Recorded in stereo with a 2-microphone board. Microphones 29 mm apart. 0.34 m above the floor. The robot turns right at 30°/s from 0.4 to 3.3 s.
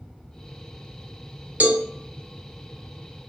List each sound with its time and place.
1.6 s a cowbell: 70° right (ahead or behind), 0.6 m; by 1.8 s 65° right (ahead or behind), 0.6 m